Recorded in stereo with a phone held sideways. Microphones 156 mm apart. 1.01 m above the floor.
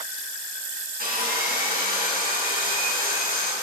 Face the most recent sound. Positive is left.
turn(degrees=-75)  # may be behind; listen again after turning